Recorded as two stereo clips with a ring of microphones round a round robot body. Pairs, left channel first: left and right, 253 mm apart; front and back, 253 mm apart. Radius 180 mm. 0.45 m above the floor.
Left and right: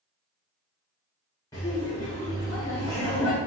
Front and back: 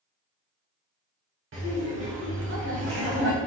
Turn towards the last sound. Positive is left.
turn(degrees=165)